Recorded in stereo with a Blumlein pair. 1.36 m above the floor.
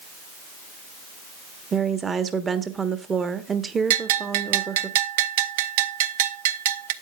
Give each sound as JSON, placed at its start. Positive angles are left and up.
{"t": 1.7, "sound": "a woman speaking", "azimuth_deg": -15, "distance_m": 1.1}
{"t": 3.9, "sound": "a bell", "azimuth_deg": -55, "distance_m": 0.7}